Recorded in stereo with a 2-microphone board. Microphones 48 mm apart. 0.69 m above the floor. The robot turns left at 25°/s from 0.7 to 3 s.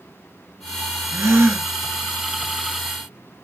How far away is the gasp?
About 0.9 m.